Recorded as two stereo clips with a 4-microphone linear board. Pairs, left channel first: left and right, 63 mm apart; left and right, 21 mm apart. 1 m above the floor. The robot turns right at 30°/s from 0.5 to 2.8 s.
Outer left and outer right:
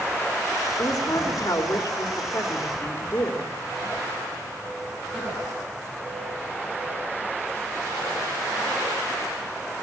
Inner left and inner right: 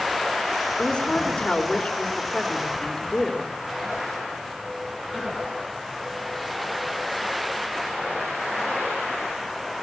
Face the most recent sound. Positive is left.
turn(degrees=125)